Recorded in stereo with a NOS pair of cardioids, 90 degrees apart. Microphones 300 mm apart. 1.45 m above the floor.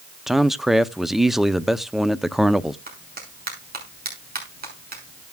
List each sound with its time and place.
0.3 s a man speaking: straight ahead, 0.6 m
2.9 s a clap: 30° right, 6 m